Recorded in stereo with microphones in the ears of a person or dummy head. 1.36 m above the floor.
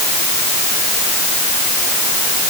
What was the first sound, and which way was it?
Only background noise.